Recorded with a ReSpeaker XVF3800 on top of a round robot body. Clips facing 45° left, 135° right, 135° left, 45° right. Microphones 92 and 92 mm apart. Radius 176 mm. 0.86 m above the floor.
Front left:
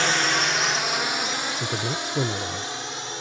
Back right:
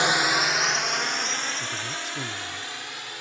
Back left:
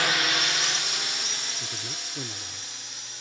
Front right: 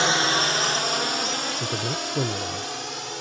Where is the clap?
No clap in this recording.